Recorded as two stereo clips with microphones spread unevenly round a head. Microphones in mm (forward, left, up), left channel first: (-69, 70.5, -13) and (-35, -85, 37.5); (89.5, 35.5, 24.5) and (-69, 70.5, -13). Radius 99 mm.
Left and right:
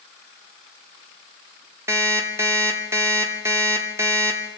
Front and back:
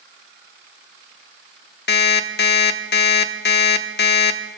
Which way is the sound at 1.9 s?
5° right.